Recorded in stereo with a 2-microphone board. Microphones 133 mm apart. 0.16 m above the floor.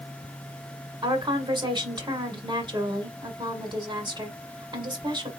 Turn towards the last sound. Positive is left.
turn(degrees=-35)  # may be behind; listen again after turning